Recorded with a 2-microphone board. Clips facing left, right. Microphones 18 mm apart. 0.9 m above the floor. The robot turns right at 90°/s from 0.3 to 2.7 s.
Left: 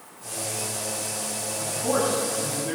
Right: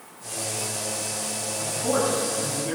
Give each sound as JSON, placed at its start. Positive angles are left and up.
{"t": 1.6, "sound": "a man speaking", "azimuth_deg": 115, "distance_m": 7.0}